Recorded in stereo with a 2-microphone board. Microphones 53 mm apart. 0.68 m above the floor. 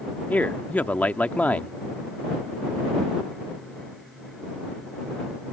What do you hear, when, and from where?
0.3 s a man speaking: 30° left (ahead or behind)